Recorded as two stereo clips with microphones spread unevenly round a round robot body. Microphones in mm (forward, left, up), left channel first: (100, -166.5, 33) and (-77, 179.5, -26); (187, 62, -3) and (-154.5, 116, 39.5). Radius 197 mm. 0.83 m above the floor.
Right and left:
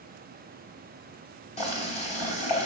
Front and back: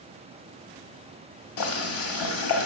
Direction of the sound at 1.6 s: 10° left.